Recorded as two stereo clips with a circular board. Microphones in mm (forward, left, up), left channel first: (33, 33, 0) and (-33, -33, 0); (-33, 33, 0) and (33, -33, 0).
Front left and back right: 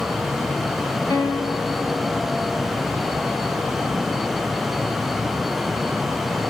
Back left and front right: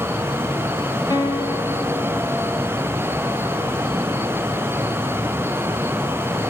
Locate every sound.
1.1 s a guitar: 90° left, 3.5 m